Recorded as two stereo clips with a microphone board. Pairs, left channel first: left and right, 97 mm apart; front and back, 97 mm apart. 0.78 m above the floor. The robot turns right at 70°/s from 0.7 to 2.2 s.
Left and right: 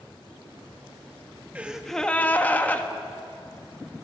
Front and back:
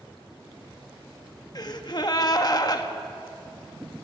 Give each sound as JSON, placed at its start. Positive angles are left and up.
{"t": 1.6, "sound": "a gasp", "azimuth_deg": -20, "distance_m": 1.4}